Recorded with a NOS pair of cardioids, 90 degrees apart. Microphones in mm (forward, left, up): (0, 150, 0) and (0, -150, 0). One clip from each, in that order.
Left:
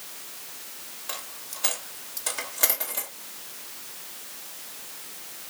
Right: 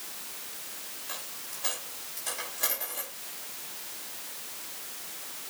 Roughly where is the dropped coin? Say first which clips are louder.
Left 5 dB; ahead left.